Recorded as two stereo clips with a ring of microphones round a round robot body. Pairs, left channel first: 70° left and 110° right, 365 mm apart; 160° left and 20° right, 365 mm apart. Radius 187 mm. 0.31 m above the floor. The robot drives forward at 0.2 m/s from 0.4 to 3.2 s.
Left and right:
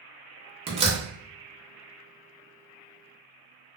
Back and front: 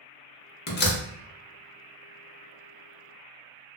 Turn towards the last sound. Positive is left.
turn(degrees=-175)